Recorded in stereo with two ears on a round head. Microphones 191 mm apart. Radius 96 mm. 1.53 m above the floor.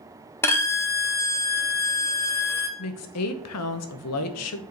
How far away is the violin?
About 0.8 m.